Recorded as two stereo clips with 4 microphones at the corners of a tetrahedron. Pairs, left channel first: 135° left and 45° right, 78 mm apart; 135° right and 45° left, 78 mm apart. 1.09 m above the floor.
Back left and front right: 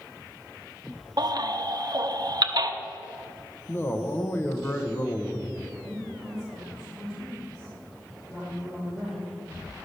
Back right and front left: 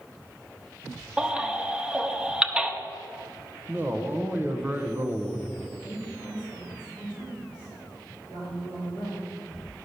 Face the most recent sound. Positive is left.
turn(degrees=35)